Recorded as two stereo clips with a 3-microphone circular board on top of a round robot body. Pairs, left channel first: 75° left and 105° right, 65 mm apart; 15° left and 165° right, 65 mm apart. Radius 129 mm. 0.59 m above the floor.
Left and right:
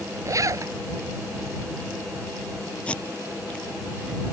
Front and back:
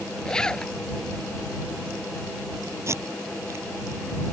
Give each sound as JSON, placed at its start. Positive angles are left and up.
{"t": 0.2, "sound": "a zipper", "azimuth_deg": -65}
{"t": 2.9, "sound": "tape being pulled", "azimuth_deg": 150}